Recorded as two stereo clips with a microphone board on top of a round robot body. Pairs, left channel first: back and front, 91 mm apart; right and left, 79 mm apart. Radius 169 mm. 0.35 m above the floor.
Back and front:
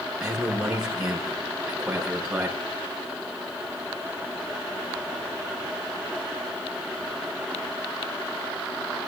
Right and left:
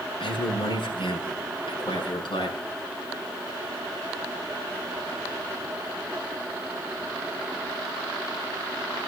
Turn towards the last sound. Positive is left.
turn(degrees=-85)